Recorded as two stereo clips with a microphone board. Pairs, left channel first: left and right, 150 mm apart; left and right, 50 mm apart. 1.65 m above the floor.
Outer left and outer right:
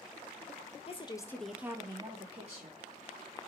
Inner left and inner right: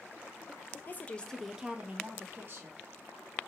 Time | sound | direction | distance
0.9 | a woman speaking | 40° left (ahead or behind) | 0.6 m